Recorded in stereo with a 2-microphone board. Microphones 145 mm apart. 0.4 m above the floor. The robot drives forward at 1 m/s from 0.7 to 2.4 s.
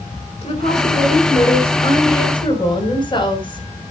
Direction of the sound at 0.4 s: 50° left (ahead or behind).